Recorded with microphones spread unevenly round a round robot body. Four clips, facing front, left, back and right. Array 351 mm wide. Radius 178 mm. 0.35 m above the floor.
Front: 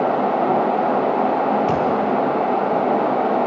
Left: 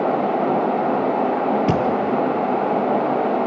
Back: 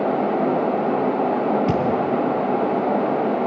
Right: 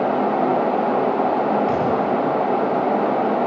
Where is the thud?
115° left, 3.5 m.